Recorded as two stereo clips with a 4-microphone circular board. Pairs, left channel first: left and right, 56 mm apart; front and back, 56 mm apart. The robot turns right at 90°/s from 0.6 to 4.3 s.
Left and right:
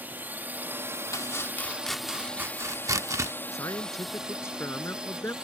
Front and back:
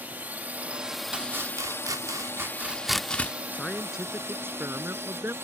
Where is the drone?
130° right; by 5.5 s 160° right.